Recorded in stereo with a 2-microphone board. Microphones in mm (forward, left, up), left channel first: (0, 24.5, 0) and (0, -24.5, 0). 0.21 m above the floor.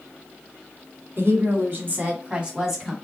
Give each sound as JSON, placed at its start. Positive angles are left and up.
{"t": 1.2, "sound": "a woman speaking", "side_deg": -55, "distance_m": 1.8}